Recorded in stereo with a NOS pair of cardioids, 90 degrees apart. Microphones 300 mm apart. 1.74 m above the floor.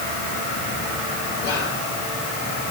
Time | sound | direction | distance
1.4 | whispering | 70° left | 3.5 m